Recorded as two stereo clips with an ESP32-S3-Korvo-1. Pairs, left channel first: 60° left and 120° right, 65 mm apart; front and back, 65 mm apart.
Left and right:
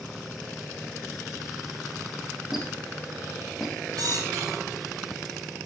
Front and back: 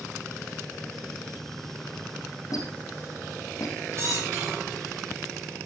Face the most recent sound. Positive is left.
turn(degrees=-135)